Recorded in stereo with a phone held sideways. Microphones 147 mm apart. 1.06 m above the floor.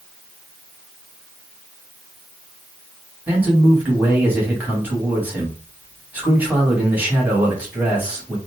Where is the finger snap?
No finger snap in this recording.